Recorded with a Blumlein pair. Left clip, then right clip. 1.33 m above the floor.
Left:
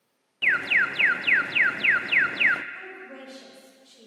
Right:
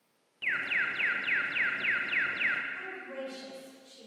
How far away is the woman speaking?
About 6.5 m.